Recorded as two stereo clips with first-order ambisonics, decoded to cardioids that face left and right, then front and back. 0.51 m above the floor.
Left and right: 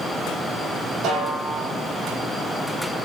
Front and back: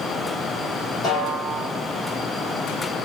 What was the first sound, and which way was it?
A snare drum, 55° right.